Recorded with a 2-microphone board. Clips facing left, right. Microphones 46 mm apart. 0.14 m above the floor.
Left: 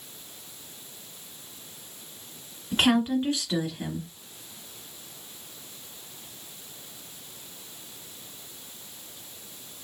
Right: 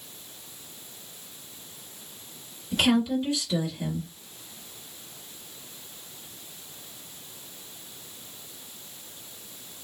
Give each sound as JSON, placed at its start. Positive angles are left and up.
{"t": 2.7, "sound": "a woman speaking", "side_deg": 40, "distance_m": 1.9}